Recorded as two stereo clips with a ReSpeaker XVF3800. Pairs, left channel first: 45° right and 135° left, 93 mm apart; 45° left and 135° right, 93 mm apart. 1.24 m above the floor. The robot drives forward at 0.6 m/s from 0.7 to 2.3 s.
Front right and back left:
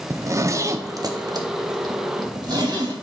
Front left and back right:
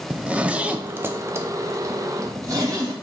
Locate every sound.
0.1 s a zipper: 160° left, 0.5 m; by 2.9 s 175° left, 1.3 m